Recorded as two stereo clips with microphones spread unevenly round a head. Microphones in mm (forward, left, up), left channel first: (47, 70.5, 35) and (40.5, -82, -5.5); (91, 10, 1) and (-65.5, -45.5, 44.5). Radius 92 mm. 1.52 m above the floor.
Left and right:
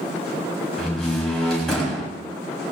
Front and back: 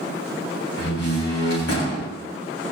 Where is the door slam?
Straight ahead, 8 m.